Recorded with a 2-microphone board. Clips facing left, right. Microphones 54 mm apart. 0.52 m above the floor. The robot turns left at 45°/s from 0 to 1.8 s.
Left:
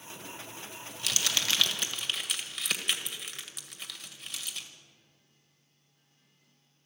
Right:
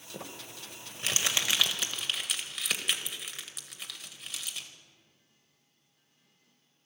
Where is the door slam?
I don't hear a door slam.